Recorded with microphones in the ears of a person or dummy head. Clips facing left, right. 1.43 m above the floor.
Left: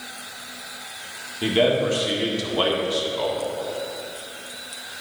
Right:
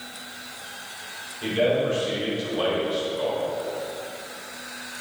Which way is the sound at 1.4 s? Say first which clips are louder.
Left 2 dB; 70° left (ahead or behind).